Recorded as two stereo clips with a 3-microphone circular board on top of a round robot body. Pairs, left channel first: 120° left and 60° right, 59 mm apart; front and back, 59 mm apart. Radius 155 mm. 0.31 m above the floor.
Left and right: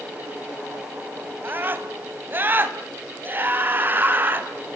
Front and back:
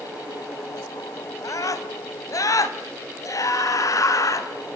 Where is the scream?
10° right, 3.5 m.